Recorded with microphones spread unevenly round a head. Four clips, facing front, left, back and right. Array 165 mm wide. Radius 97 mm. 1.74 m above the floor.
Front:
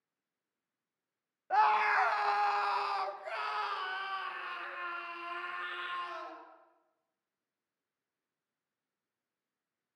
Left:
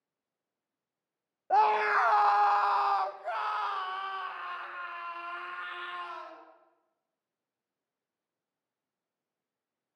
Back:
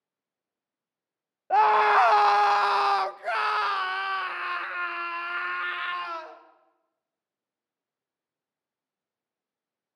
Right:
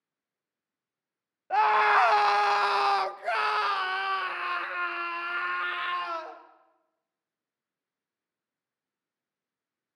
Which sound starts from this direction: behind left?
A scream, at 1.5 s.